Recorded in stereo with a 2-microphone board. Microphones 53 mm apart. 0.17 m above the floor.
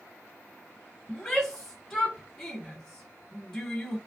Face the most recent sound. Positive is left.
turn(degrees=5)  # may be behind; listen again after turning